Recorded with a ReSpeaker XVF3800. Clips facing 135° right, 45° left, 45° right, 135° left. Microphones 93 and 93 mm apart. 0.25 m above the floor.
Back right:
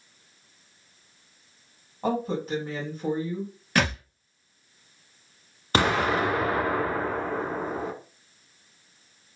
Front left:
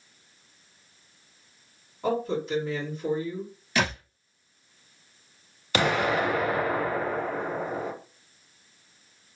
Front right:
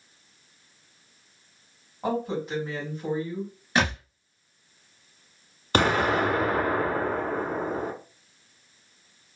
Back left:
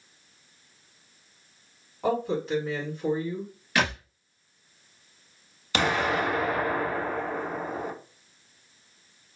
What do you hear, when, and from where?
2.0 s a woman speaking: 115° right, 1.9 m
3.8 s a thud: 105° right, 1.3 m
5.7 s an explosion: 85° right, 0.9 m